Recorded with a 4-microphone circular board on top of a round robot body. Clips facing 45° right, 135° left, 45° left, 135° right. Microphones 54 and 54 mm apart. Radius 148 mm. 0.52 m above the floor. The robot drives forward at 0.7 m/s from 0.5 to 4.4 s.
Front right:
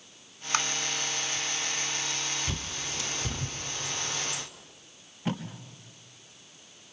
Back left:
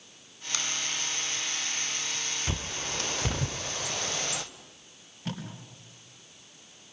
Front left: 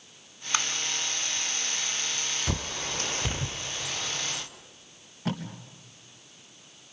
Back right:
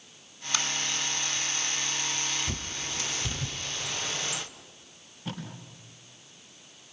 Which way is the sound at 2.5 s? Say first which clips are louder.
Back left 2 dB, front left 3 dB; 60° left.